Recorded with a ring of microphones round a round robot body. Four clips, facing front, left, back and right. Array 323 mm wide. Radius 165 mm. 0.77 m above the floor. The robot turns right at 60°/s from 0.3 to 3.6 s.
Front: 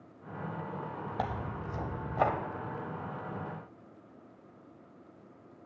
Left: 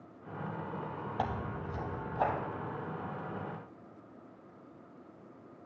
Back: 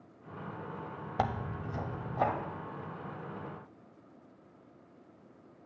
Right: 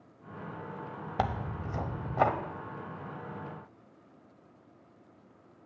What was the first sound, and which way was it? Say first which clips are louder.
Tearing paper: right 4 dB, back 4 dB; 125° right.